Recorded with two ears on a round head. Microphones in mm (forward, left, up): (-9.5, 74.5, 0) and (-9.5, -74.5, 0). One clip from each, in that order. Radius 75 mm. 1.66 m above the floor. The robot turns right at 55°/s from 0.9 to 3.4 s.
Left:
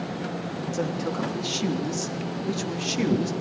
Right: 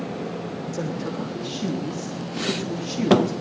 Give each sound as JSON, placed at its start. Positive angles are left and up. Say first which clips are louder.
{"t": 0.7, "sound": "a woman speaking", "louder": "left 2 dB", "azimuth_deg": 5, "distance_m": 3.5}